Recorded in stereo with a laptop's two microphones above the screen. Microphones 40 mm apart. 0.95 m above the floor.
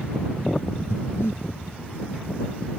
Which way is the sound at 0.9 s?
85° left.